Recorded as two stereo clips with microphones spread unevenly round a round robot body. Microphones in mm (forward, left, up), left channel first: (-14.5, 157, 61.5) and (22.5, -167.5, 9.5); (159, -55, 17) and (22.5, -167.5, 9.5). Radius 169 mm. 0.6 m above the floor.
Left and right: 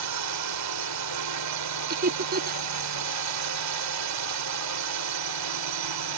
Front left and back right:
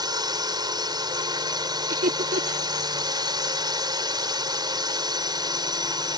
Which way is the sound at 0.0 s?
80° right.